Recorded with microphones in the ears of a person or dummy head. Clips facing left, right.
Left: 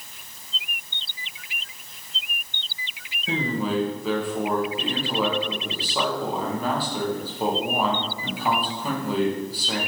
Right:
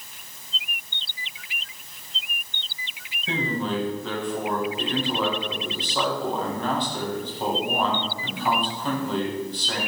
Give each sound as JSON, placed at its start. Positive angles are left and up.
{"t": 3.3, "sound": "a man speaking", "side_deg": 10, "distance_m": 1.7}